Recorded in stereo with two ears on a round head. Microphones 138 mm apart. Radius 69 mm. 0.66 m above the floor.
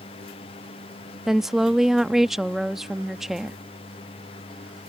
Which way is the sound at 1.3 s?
Centre (ahead or behind).